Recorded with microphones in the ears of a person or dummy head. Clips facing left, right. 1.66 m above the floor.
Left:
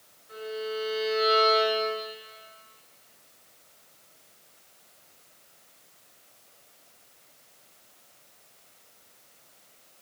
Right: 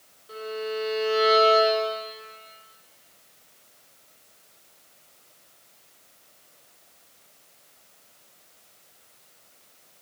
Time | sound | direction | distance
0.3 | a violin | 70° right (ahead or behind) | 3.5 m